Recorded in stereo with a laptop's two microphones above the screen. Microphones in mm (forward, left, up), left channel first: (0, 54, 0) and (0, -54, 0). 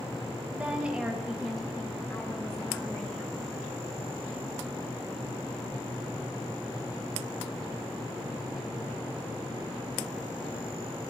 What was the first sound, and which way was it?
A woman speaking, 15° right (ahead or behind).